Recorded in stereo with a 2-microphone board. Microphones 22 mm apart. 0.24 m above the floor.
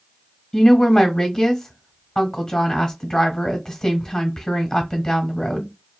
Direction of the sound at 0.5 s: 20° left (ahead or behind).